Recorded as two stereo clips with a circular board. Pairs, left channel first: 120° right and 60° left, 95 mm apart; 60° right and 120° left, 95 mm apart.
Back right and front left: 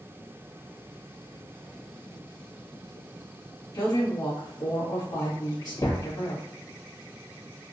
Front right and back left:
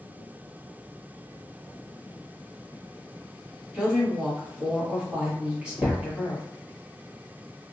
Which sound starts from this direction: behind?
A woman speaking, at 3.7 s.